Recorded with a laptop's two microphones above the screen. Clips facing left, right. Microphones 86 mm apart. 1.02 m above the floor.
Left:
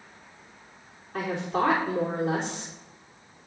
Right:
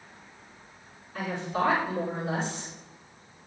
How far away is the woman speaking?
About 3 m.